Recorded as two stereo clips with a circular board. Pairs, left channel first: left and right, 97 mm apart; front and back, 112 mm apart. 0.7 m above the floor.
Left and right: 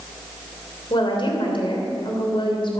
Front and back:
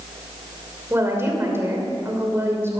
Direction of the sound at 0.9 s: 115° left.